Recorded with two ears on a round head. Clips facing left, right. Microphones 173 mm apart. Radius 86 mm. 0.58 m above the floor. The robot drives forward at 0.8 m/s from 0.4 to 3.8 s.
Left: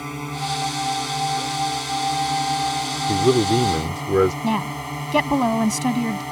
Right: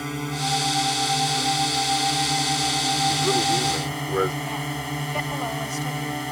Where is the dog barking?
No dog barking in this recording.